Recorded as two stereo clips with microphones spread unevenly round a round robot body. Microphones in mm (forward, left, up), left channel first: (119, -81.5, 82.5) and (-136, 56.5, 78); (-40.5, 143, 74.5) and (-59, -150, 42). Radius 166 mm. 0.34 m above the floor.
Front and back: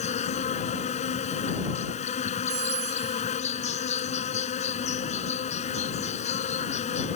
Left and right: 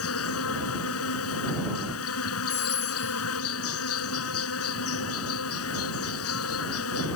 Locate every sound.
0.0 s an insect: 40° left
2.5 s a phone ringing: 140° left